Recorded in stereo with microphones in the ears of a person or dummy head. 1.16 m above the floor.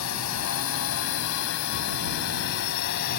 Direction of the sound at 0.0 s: 85° left.